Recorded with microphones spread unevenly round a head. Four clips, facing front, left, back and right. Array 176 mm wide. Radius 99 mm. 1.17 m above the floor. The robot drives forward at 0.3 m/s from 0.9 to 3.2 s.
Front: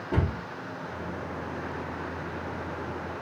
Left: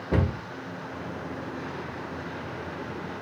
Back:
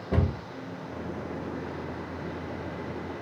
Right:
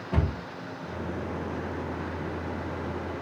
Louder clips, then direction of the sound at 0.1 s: Left 4 dB, back 1 dB; 115° left.